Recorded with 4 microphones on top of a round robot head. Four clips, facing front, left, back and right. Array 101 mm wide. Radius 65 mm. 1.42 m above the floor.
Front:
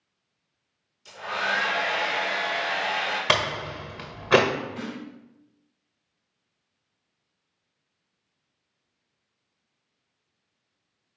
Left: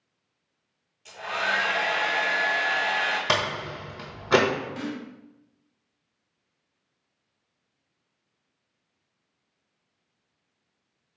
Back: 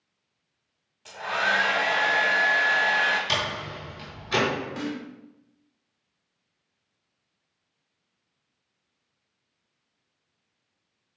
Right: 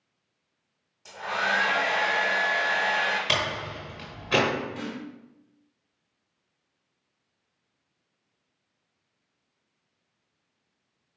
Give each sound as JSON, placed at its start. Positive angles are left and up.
{"t": 1.1, "sound": "a hair dryer", "azimuth_deg": -145, "distance_m": 2.0}
{"t": 3.3, "sound": "a door slam", "azimuth_deg": 35, "distance_m": 1.1}
{"t": 4.8, "sound": "a snare drum", "azimuth_deg": 170, "distance_m": 2.5}